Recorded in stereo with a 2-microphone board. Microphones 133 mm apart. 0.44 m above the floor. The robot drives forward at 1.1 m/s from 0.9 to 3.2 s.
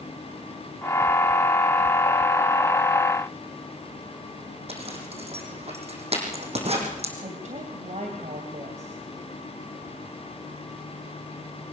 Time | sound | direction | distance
4.7 | a zipper | 50° right (ahead or behind) | 4.5 m
7.2 | a woman speaking | 65° right (ahead or behind) | 2.5 m